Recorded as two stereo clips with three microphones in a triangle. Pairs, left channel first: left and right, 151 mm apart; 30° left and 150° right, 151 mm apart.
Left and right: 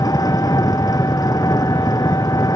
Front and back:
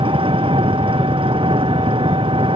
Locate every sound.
0.0 s an engine running: 155° left